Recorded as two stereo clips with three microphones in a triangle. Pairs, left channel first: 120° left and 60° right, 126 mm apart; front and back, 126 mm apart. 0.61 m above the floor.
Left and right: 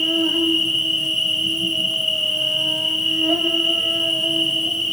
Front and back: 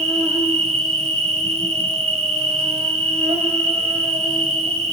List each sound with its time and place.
0.0 s an insect: 150° right, 3.5 m